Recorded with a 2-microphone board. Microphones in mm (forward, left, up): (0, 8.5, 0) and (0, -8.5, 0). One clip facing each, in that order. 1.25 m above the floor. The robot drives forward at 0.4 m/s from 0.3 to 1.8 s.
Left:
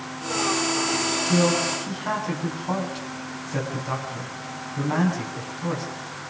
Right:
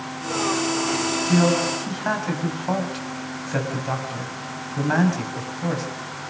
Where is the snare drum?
No snare drum in this recording.